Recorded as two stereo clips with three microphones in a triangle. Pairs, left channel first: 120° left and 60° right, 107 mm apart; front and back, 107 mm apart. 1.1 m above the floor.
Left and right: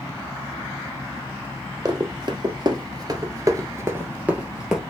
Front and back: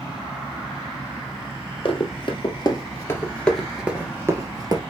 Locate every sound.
1.9 s running footsteps: 20° right, 2 m; by 4.8 s 145° right, 1.6 m